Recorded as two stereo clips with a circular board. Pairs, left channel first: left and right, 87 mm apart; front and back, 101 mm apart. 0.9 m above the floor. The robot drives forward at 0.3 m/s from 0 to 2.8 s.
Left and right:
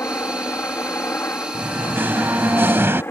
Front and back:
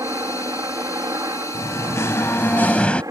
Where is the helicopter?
140° left.